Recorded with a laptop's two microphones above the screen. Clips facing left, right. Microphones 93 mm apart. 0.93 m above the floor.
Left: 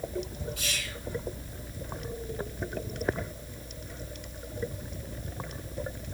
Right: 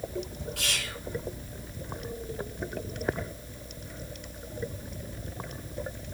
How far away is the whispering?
About 2.0 m.